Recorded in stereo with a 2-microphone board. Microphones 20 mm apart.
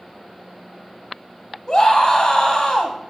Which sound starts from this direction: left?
A scream, at 1.7 s.